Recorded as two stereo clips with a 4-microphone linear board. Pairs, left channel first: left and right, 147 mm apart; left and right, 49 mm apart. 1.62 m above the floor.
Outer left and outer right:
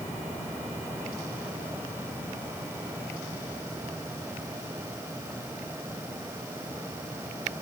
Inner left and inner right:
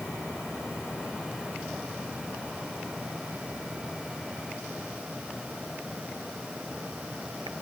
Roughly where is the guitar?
I don't hear a guitar.